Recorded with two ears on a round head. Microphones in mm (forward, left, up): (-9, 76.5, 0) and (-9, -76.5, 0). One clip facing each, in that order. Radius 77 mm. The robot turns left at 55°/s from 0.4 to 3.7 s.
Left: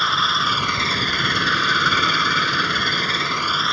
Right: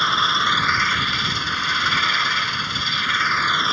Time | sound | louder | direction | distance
0.0 | an engine running | even | straight behind | ?